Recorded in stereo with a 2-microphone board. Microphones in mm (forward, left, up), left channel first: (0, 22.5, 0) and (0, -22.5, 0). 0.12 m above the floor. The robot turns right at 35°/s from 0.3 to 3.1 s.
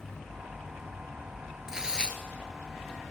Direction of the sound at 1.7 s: 10° right (ahead or behind).